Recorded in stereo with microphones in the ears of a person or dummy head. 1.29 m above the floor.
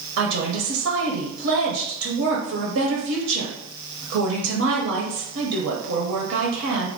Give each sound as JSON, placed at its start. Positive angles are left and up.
{"t": 0.2, "sound": "a woman speaking", "side_deg": -75, "distance_m": 0.7}